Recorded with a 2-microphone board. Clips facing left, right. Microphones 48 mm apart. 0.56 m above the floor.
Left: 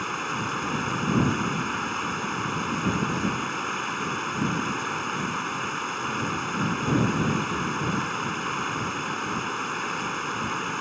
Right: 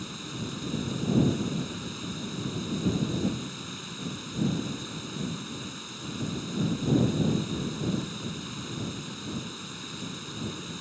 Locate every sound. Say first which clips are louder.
0.0 s running water: left 9 dB; 60° left (ahead or behind)